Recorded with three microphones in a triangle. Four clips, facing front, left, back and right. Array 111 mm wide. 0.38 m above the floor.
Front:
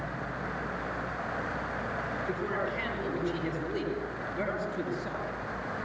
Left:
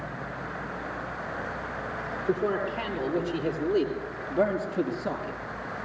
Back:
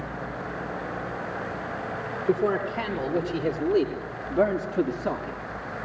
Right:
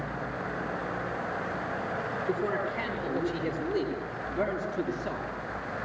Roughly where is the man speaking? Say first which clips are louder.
Left 4 dB, back 11 dB; behind left.